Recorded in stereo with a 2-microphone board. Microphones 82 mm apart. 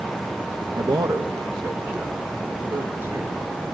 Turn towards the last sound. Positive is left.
turn(degrees=-55)  # may be behind; listen again after turning